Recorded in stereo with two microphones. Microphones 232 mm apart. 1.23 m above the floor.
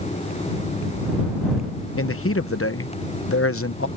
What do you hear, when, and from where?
2.0 s a man speaking: 70° left (ahead or behind)